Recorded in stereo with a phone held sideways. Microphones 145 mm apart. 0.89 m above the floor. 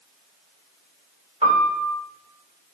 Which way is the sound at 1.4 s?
40° right (ahead or behind).